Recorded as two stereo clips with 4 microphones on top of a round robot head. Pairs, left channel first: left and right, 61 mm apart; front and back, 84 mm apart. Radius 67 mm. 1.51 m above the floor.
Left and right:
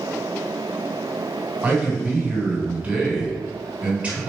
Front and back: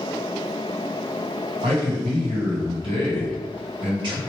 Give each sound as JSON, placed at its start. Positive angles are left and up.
{"t": 1.6, "sound": "a man speaking", "azimuth_deg": -155, "distance_m": 1.5}